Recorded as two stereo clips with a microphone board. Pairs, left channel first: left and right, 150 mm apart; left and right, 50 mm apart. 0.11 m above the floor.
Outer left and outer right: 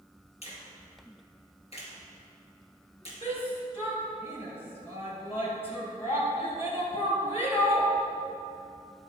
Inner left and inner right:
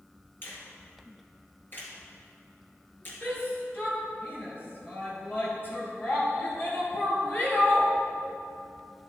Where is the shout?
40° left (ahead or behind), 2.5 m.